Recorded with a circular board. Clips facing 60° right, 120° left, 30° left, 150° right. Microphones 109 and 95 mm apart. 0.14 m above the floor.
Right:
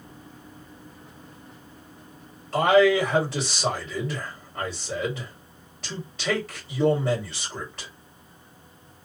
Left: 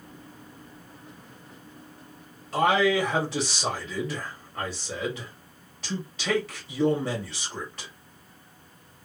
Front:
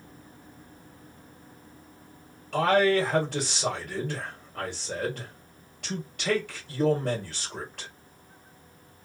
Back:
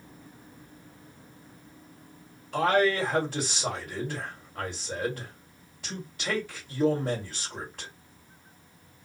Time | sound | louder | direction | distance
2.5 | a man speaking | right 4 dB, front 2 dB | 30° left | 2.5 m